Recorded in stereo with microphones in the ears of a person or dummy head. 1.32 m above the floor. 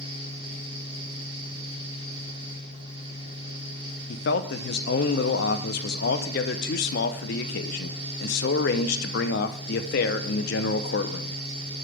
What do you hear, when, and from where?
0.0 s a fan: 35° right (ahead or behind), 2.5 m
4.1 s a man speaking: 55° left (ahead or behind), 0.8 m